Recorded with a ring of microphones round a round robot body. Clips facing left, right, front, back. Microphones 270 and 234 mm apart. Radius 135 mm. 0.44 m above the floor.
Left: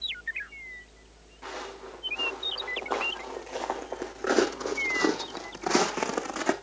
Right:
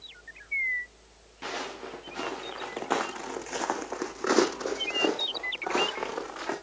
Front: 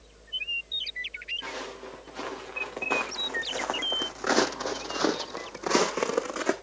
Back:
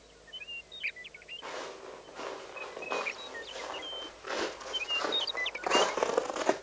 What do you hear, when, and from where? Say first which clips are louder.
1.4 s footsteps: right 2 dB, front 3 dB; 55° right, 3.5 m; by 6.5 s 70° left, 1.9 m